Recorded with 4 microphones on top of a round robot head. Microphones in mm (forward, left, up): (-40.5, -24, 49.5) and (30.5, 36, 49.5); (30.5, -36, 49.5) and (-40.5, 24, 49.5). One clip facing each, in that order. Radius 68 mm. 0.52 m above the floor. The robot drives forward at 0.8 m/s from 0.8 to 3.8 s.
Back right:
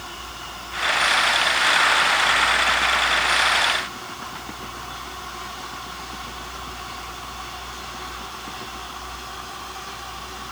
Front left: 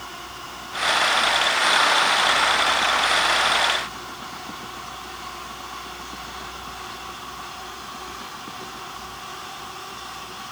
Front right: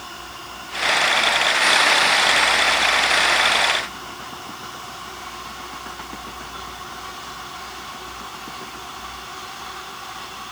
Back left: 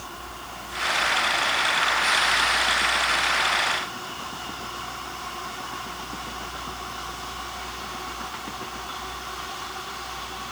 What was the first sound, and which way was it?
Only background noise.